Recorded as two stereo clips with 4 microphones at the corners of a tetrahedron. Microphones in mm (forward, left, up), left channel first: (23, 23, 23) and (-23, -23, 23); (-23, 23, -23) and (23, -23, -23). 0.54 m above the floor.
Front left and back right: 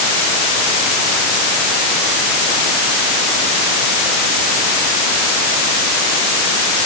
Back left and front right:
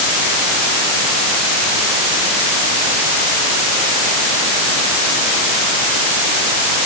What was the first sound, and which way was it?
Only background noise.